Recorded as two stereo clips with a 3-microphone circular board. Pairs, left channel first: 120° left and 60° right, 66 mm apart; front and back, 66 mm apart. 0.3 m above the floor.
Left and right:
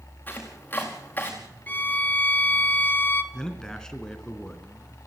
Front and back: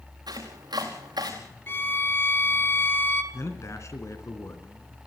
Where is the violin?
60° left, 1.2 m.